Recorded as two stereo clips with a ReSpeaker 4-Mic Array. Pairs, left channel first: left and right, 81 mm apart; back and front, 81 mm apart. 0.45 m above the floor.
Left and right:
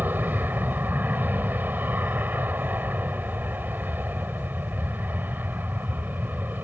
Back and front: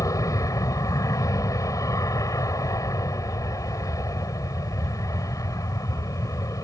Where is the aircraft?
150° right.